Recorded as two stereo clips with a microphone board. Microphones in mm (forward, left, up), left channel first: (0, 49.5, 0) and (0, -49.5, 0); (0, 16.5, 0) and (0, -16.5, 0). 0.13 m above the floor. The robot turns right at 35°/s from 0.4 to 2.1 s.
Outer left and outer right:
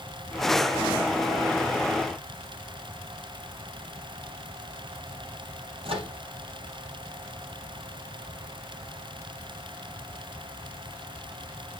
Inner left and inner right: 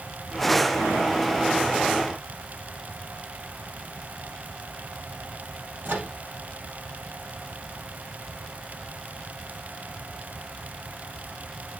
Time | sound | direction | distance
5.8 | a microwave | 70° right (ahead or behind) | 3 m